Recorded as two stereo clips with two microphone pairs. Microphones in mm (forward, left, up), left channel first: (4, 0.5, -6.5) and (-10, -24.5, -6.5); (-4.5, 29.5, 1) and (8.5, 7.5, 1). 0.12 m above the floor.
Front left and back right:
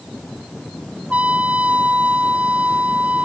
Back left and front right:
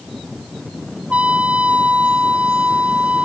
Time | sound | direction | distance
1.1 | a trumpet | 85° right | ?